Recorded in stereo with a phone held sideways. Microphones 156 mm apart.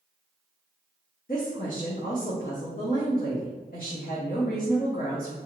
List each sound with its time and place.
1.3 s a woman speaking: 65° left (ahead or behind), 0.7 m